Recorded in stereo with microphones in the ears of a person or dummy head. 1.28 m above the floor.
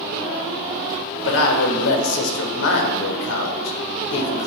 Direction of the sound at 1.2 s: 75° left (ahead or behind).